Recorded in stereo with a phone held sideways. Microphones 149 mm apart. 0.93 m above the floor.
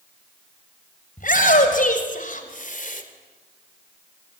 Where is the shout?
65° left (ahead or behind), 5 m; by 3.0 s 60° left (ahead or behind), 3 m.